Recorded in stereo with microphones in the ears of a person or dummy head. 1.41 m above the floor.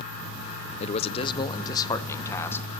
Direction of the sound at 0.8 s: 35° left (ahead or behind).